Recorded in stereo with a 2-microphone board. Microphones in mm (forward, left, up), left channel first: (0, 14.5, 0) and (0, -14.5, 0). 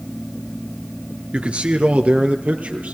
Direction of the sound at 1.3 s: 40° right (ahead or behind).